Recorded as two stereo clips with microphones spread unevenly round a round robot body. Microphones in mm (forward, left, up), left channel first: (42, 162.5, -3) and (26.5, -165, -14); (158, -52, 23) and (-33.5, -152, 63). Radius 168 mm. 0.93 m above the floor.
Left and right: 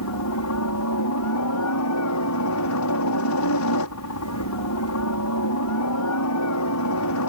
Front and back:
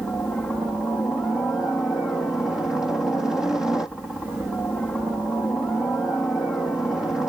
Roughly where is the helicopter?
Left.